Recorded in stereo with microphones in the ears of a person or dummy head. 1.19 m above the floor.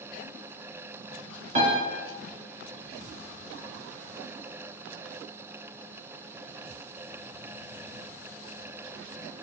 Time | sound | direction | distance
1.6 | a piano | 35° right (ahead or behind) | 1.6 m